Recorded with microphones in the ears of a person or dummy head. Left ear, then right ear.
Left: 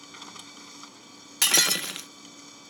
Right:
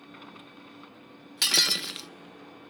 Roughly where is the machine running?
Left.